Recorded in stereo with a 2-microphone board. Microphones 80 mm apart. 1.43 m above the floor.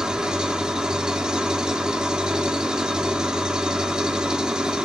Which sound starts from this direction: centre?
An engine running, at 0.0 s.